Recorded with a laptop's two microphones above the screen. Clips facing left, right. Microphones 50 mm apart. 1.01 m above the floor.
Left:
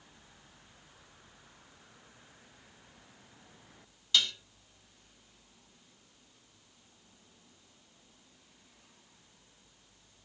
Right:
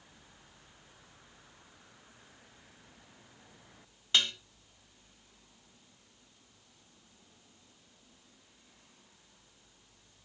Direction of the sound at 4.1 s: 30° right (ahead or behind).